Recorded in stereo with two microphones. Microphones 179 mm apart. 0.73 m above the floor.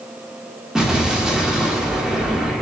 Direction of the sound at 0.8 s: Centre (ahead or behind).